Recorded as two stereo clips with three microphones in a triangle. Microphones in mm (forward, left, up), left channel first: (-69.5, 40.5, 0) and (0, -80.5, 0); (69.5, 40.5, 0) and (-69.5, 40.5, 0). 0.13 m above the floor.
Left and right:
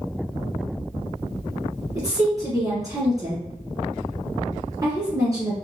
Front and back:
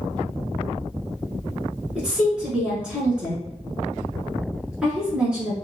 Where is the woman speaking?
105° right, 1.4 m.